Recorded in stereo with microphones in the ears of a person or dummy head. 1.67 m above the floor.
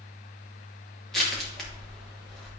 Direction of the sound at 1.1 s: Centre (ahead or behind).